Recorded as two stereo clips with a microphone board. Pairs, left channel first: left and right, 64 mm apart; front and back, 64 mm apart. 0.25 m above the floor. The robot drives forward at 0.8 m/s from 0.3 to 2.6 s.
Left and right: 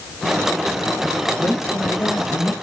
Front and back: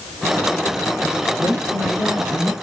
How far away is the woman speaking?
About 3 m.